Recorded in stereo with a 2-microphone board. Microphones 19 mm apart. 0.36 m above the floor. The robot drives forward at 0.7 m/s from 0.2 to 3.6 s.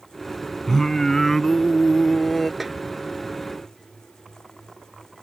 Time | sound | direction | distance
0.7 | singing | 25° left (ahead or behind) | ?
2.6 | a snare drum | 10° right (ahead or behind) | ?